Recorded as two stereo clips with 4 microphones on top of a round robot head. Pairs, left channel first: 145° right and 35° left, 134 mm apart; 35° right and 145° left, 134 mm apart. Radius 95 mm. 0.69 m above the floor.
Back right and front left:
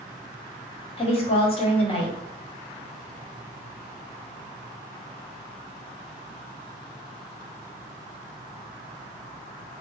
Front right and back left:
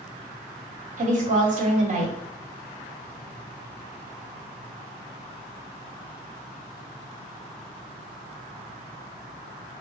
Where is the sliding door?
No sliding door in this recording.